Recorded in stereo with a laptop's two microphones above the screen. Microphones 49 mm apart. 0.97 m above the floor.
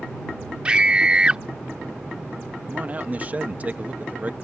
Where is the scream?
20° right (ahead or behind).